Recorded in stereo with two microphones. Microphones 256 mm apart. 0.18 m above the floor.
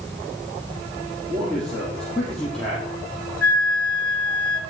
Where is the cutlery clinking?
No cutlery clinking in this recording.